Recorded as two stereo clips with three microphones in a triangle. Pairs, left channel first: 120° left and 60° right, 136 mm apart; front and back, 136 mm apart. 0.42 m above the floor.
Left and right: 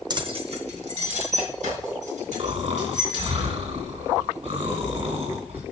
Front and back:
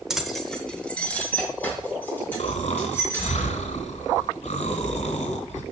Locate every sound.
0.1 s keys jangling: 95° right, 0.7 m; by 3.3 s 75° right, 4 m
2.4 s snoring: 30° right, 1.9 m